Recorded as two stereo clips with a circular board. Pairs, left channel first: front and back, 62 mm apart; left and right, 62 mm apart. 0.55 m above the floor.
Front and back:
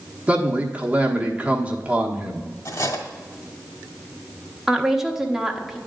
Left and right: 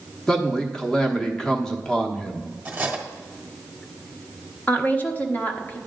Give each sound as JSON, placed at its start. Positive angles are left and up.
{"t": 0.3, "sound": "a man speaking", "azimuth_deg": 155, "distance_m": 1.0}
{"t": 2.6, "sound": "cutlery clinking", "azimuth_deg": -20, "distance_m": 1.3}
{"t": 4.7, "sound": "a woman speaking", "azimuth_deg": 100, "distance_m": 1.0}